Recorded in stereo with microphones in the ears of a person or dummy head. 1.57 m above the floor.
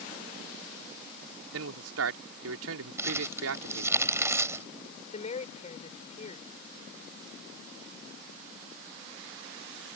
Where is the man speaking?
85° right.